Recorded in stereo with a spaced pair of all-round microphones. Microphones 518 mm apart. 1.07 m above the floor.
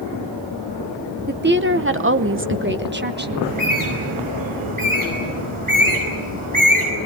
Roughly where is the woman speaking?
Centre.